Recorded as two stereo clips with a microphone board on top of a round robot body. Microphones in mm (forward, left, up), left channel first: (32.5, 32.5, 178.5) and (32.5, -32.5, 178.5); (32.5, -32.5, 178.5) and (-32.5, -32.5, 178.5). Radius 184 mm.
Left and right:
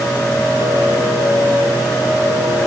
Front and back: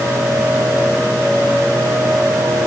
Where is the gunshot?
I don't hear a gunshot.